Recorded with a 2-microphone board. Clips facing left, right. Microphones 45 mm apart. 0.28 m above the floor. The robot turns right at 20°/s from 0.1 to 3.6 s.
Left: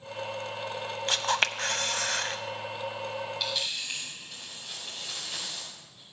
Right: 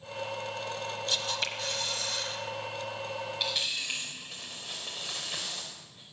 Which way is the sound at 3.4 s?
20° right (ahead or behind).